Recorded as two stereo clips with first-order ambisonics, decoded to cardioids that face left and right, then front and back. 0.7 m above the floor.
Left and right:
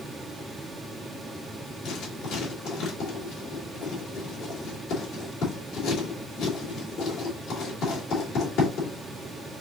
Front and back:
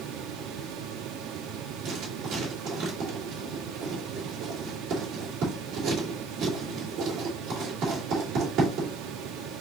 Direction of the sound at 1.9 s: 130° left.